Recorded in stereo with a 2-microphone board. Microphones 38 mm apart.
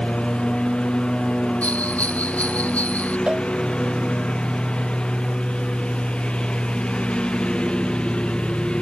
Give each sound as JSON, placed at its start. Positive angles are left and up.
{"t": 0.0, "sound": "a lawn mower", "side_deg": 25}
{"t": 1.6, "sound": "a bell", "side_deg": 40}
{"t": 3.3, "sound": "a cowbell", "side_deg": -30}